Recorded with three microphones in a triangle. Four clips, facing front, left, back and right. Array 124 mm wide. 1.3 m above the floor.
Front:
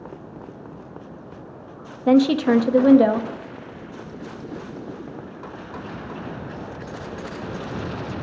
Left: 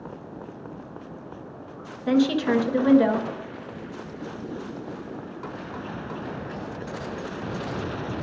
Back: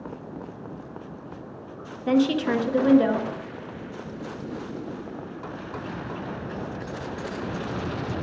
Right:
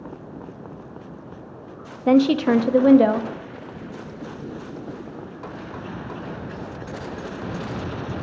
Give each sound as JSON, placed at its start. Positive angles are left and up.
{"t": 2.1, "sound": "a woman speaking", "azimuth_deg": -55, "distance_m": 0.7}